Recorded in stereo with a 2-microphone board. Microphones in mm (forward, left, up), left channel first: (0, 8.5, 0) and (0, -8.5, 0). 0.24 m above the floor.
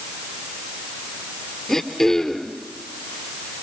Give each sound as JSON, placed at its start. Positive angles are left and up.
{"t": 1.7, "sound": "throat clearing", "side_deg": 25, "distance_m": 2.5}